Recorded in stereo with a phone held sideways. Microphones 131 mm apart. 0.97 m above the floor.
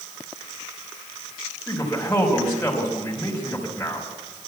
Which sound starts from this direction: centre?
A man speaking, at 1.7 s.